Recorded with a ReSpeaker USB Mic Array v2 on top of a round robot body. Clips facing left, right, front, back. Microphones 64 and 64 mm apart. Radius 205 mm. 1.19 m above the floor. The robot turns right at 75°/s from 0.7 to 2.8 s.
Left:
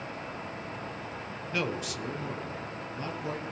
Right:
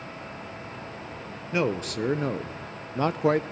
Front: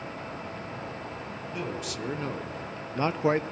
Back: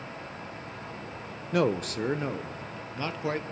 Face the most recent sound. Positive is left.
turn(degrees=-65)